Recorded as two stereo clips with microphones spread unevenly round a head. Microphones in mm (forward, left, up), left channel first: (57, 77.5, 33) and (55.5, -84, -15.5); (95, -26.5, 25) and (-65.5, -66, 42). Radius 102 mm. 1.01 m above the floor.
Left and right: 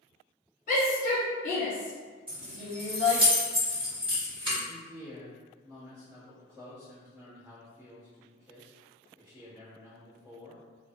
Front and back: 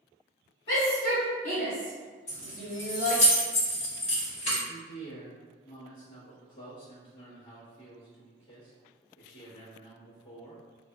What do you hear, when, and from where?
0.7 s a shout: 60° left, 1.2 m; by 3.2 s 170° left, 1.0 m
2.3 s keys jangling: 35° right, 1.5 m
4.7 s a man speaking: 30° right, 1.2 m